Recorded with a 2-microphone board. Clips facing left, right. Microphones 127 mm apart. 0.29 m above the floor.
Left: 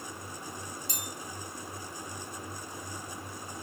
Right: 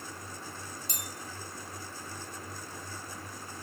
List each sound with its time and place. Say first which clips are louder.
0.9 s a bell: left 2 dB; 50° right (ahead or behind), 0.6 m